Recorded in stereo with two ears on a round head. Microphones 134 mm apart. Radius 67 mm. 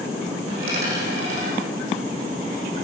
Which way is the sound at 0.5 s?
45° right (ahead or behind).